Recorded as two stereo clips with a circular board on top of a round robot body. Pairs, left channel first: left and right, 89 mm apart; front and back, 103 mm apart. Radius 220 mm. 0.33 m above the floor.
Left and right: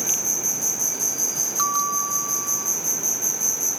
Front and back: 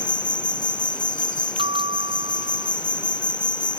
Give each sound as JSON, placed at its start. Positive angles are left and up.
{"t": 0.0, "sound": "an insect", "azimuth_deg": 0}
{"t": 1.6, "sound": "a bell", "azimuth_deg": -145}